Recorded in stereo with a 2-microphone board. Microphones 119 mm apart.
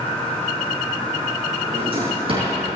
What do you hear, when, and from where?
1.7 s a drawer: 50° right (ahead or behind), 5.5 m